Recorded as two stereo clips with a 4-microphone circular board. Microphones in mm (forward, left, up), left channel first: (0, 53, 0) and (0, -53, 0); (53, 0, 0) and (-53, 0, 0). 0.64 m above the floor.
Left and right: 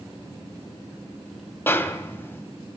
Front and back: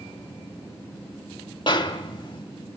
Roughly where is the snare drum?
Ahead left.